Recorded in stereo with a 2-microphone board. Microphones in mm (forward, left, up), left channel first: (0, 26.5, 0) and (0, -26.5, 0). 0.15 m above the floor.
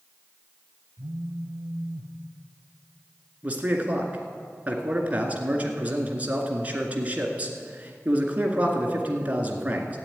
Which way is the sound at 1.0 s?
55° right (ahead or behind).